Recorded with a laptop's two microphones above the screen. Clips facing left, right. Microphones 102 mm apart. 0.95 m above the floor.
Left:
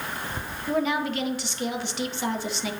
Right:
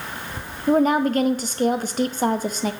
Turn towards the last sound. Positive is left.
turn(degrees=-45)  # may be behind; listen again after turning